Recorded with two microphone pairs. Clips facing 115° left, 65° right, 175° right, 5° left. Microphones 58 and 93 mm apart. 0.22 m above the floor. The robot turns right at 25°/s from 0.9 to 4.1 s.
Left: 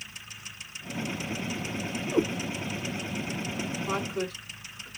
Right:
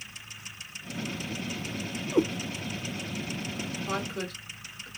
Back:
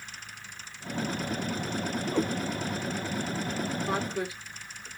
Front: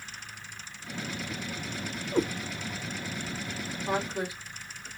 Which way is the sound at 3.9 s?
55° left.